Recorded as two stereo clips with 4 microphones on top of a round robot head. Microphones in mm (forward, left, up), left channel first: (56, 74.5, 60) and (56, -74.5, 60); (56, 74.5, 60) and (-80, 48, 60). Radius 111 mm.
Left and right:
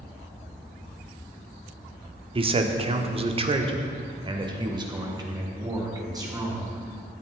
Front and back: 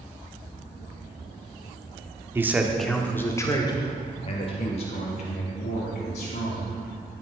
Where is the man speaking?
105° right, 1.2 m; by 6.8 s 25° right, 4 m.